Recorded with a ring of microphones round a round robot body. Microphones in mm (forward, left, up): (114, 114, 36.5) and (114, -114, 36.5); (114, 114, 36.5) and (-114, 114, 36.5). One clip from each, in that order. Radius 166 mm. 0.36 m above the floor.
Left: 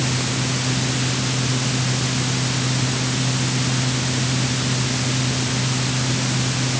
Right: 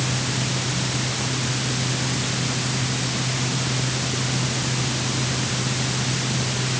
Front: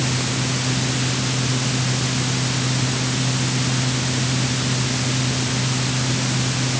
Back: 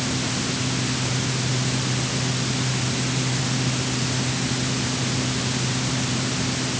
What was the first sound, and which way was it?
Only background noise.